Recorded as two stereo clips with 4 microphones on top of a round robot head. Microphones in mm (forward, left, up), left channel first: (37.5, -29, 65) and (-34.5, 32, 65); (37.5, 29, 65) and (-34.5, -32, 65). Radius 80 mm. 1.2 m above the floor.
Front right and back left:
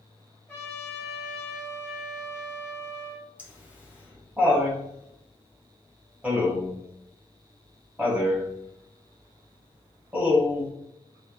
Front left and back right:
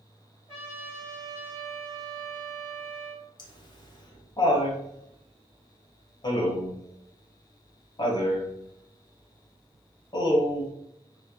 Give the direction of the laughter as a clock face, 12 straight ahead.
10 o'clock.